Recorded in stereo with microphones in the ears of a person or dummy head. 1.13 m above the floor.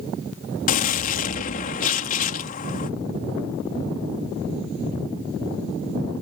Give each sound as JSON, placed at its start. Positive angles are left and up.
{"t": 0.7, "sound": "a gunshot", "side_deg": 45}